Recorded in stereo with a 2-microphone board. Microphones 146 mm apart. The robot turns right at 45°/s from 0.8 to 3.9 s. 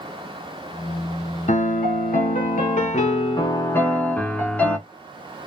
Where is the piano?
60° left, 0.7 m; by 4.8 s 170° left, 0.7 m.